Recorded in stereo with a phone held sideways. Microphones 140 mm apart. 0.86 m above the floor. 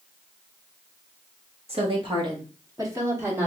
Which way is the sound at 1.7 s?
45° right (ahead or behind).